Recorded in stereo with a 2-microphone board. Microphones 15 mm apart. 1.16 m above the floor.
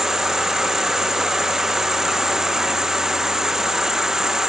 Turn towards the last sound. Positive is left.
turn(degrees=-45)  # may be behind; listen again after turning